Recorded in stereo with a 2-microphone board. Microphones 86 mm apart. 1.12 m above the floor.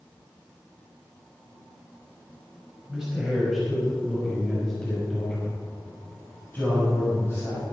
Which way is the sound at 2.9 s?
10° right (ahead or behind).